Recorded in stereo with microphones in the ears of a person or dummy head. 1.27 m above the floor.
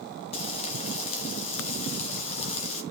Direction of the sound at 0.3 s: 35° left (ahead or behind).